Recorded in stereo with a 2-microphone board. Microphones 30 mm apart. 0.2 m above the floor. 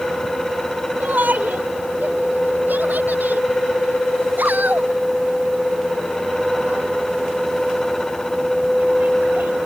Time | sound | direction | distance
1.0 | a shout | 75° right (ahead or behind) | ?